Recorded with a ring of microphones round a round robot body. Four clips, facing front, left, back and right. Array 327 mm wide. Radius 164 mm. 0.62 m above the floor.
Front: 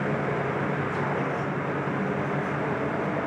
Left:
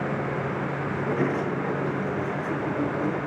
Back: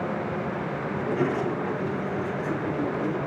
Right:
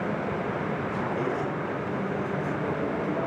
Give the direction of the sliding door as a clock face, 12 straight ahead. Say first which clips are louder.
Left 5 dB, back 2 dB; 8 o'clock.